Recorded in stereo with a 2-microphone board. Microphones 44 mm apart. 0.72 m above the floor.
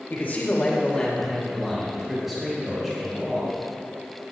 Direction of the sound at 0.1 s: 45° left (ahead or behind).